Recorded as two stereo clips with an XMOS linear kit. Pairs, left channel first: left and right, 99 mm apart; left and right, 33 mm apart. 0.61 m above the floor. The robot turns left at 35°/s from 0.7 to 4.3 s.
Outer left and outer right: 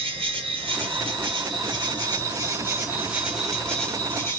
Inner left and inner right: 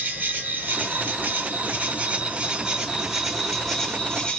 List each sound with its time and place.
0.0 s an insect: 80° right, 1.5 m; by 4.4 s 155° left, 1.5 m